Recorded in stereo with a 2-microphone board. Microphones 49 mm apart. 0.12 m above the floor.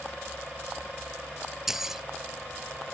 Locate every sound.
1.7 s keys jangling: 5° right (ahead or behind)